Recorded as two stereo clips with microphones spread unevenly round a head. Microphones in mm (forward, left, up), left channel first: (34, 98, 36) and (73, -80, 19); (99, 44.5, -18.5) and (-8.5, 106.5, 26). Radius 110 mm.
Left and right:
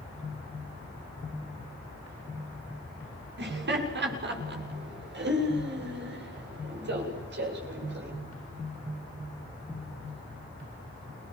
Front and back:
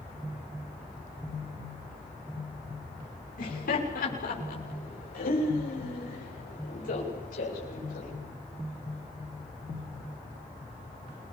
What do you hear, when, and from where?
3.4 s laughter: 55° right, 6.5 m; by 8.1 s 50° right, 9 m